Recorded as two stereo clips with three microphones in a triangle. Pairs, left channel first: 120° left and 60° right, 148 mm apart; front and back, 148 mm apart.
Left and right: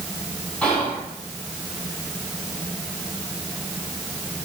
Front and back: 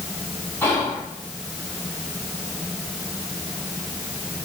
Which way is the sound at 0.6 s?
45° left.